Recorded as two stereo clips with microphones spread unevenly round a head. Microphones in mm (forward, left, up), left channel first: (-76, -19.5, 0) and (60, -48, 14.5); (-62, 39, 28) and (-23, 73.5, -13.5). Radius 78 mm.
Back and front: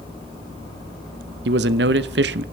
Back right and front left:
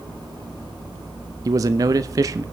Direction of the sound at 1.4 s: 10° left.